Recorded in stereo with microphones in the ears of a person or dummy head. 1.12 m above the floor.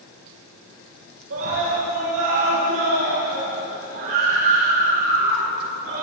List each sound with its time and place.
1.3 s a scream: 80° right, 5.5 m; by 6.0 s 75° right (ahead or behind), 9 m